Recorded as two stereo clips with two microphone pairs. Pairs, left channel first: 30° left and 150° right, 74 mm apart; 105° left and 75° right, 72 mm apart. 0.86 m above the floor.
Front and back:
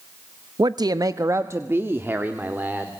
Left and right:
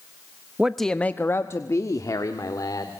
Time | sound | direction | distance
0.6 | a man speaking | 145° right | 0.7 m